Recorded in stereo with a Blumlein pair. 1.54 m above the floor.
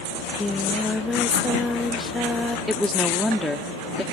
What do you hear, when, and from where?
0.1 s singing: 10° left
2.7 s a woman speaking: 5° left